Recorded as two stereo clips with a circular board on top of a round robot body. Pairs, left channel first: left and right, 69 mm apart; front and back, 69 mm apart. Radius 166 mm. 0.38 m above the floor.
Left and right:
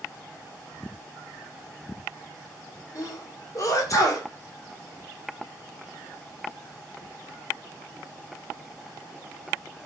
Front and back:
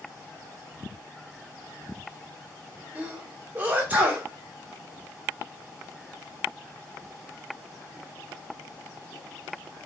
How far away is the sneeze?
About 2 m.